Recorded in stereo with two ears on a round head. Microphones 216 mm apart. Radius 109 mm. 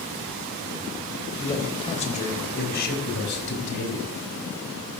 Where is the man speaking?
20° left (ahead or behind), 3 m; by 4.1 s 60° left (ahead or behind), 5 m.